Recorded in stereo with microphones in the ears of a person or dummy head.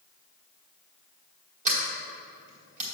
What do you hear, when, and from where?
1.6 s a sliding door: 45° right (ahead or behind), 1.9 m